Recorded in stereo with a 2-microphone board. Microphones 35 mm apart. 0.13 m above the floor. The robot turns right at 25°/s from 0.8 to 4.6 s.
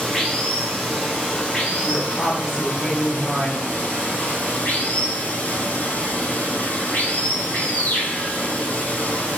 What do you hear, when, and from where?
0.0 s running water: 10° left, 2.0 m; by 9.4 s 105° left, 2.0 m
1.8 s a woman speaking: 5° left, 2.5 m; by 3.6 s 45° left, 2.5 m